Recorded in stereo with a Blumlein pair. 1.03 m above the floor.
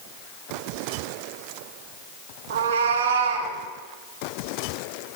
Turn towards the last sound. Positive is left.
turn(degrees=-65)